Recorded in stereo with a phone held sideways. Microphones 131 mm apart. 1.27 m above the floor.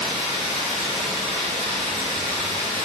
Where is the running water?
45° right (ahead or behind), 1.2 m.